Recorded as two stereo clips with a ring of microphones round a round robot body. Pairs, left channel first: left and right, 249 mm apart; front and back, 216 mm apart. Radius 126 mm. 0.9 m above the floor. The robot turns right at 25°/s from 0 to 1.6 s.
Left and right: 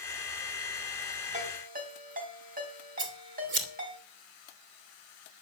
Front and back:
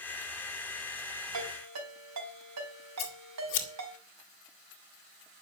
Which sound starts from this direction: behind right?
A ringtone, at 1.3 s.